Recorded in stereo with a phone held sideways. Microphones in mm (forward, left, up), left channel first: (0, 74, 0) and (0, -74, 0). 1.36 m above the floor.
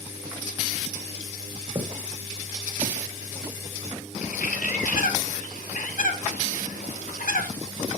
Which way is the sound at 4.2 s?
75° left (ahead or behind).